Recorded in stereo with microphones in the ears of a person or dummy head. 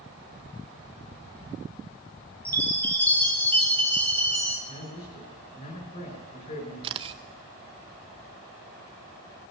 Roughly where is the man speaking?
Left.